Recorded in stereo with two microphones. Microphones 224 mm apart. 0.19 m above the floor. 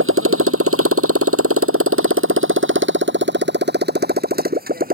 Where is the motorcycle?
70° right (ahead or behind); by 5.0 s 40° right (ahead or behind).